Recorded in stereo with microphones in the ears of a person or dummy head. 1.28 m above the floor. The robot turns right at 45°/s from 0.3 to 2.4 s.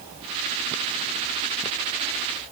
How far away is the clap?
I don't hear a clap.